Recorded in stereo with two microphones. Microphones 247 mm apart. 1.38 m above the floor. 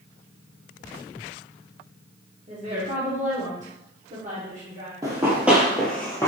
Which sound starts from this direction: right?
A woman speaking, at 2.5 s.